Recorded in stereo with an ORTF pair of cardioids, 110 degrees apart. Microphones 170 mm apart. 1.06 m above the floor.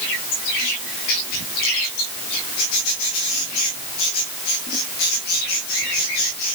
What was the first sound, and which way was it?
Only background noise.